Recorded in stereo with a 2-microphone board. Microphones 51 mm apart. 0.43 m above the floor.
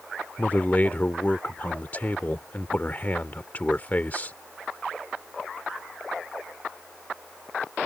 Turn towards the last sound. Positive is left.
turn(degrees=35)  # may be behind; listen again after turning